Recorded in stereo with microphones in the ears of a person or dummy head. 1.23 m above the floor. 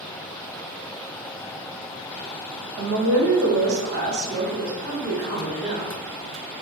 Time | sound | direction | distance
2.8 | a woman speaking | 70° right (ahead or behind) | 0.7 m